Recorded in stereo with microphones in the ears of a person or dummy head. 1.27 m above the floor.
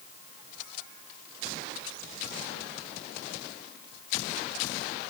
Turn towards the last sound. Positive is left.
No sound to turn to.